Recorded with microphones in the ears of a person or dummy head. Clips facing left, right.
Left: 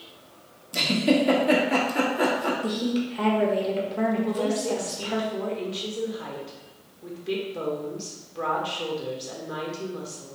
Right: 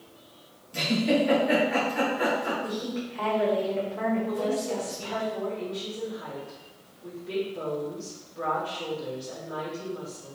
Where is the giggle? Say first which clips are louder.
Left 2 dB; 60° left (ahead or behind), 1.3 m.